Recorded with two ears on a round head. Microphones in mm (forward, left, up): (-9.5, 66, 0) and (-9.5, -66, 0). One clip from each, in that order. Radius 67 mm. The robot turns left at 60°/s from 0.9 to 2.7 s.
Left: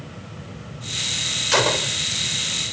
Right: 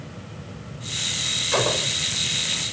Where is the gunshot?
55° left (ahead or behind); by 2.0 s 70° left (ahead or behind).